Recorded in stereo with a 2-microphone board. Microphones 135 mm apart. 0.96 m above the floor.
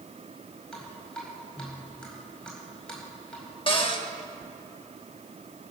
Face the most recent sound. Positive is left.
turn(degrees=40)  # may be behind; listen again after turning